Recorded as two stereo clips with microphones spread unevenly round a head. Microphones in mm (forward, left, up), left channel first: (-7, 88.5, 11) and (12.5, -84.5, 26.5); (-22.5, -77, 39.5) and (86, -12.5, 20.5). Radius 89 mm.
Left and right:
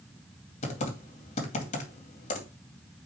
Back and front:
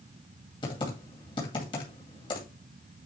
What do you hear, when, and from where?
0.6 s typing on a keyboard: 145° left, 2 m